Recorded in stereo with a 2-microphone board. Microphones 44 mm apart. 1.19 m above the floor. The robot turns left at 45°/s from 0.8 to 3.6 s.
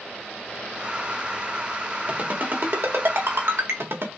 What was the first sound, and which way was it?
A ringtone, 35° right (ahead or behind).